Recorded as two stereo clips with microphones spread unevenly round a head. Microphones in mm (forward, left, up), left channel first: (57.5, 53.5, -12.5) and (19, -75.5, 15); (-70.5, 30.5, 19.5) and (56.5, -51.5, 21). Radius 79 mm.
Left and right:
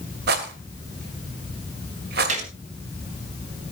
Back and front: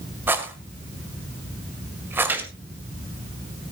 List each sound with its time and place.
0.3 s a rattle: 110° right, 1.9 m
2.3 s a gunshot: 110° right, 2.5 m